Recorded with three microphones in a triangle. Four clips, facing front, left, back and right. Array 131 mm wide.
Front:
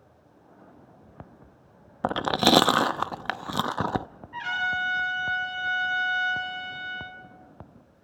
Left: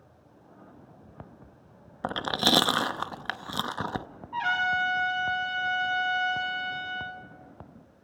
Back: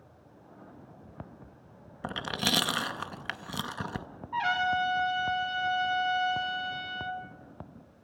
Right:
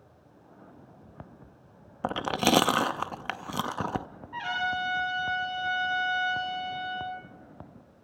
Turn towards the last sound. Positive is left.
turn(degrees=155)